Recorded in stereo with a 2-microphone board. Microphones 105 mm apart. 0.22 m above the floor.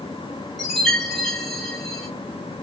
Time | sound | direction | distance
0.6 | a chime | centre (ahead or behind) | 1.4 m